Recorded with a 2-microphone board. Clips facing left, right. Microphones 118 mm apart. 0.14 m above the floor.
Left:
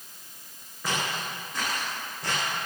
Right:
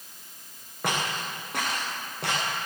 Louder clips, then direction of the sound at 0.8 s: Right 1 dB; 70° right (ahead or behind).